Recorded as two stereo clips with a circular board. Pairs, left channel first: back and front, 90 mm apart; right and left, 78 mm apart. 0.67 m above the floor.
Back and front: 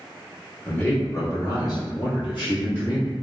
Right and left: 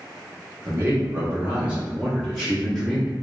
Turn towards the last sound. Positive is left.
turn(degrees=180)